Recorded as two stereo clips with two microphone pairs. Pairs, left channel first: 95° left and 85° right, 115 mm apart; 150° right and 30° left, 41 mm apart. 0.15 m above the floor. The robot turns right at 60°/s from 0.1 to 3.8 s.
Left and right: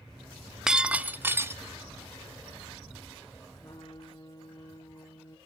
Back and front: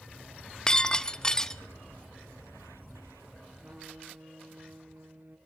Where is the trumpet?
45° left, 3 m; by 5.4 s 55° left, 3 m.